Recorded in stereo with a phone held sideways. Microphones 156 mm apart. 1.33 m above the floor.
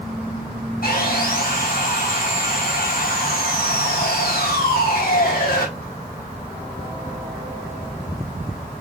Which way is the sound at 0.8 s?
70° left (ahead or behind).